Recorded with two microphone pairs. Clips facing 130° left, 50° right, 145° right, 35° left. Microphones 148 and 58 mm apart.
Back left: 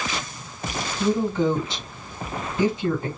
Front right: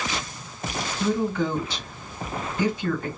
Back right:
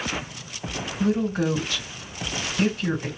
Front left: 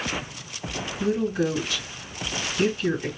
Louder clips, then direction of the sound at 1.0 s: Back left 3 dB, back right 1 dB; 170° right.